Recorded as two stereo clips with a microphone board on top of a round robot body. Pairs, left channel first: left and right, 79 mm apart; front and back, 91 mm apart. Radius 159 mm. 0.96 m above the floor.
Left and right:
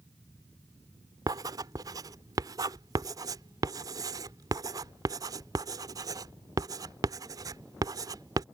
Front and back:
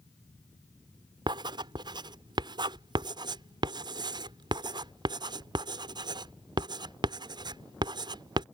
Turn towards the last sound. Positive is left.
turn(degrees=-135)